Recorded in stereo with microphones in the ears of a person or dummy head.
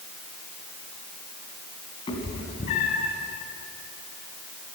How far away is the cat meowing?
About 2 m.